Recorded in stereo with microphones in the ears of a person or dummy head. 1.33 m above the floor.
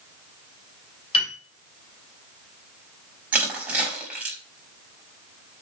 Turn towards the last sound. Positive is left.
turn(degrees=-10)  # may be behind; listen again after turning